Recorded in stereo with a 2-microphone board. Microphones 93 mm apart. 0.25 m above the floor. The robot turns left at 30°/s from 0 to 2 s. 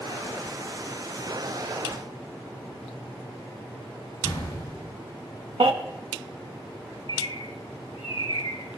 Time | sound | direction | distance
4.2 | an explosion | 55° left (ahead or behind) | 5 m
5.6 | a baby crying | 70° right (ahead or behind) | 1.0 m
7.1 | a bird | 60° left (ahead or behind) | 1.2 m